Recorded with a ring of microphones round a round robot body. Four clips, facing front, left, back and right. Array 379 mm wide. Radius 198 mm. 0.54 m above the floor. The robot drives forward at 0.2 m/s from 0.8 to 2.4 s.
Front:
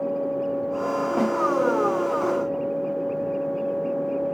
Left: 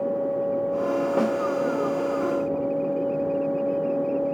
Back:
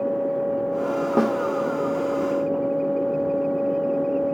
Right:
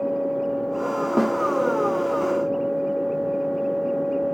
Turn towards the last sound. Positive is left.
turn(degrees=-160)